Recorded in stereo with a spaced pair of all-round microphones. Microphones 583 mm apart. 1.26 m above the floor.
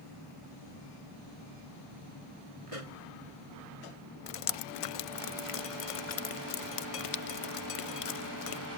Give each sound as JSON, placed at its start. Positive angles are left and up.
{"t": 2.7, "sound": "a pop", "side_deg": -65}
{"t": 4.3, "sound": "dripping", "side_deg": 65}